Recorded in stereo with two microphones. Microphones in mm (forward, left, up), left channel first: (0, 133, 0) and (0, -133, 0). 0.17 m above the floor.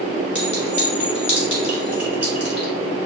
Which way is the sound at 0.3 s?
5° right (ahead or behind).